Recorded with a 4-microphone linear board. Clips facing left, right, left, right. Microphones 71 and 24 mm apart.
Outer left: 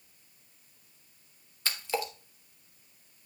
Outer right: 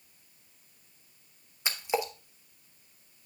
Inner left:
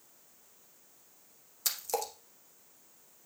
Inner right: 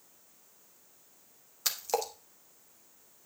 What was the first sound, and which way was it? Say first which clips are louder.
A splash: outer right 3 dB, inner right 3 dB; 20° right (ahead or behind).